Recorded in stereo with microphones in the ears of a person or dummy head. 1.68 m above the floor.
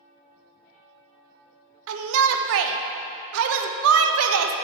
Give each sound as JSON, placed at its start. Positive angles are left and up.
{"t": 1.9, "sound": "a shout", "side_deg": -75, "distance_m": 0.6}